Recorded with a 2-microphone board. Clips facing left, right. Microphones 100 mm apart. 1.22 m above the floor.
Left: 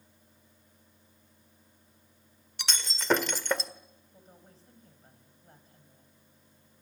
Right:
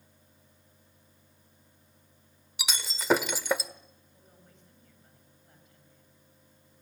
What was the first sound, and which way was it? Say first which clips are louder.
Breaking glass: right 1 dB; 10° right (ahead or behind).